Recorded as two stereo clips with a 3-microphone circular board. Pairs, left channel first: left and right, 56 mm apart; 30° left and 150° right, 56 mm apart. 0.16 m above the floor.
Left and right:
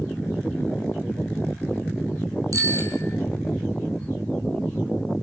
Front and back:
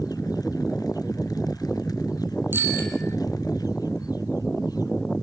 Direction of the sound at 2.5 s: 100° right.